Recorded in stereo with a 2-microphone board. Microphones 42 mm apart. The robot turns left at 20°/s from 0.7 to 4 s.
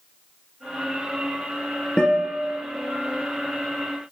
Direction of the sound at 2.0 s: 25° left (ahead or behind).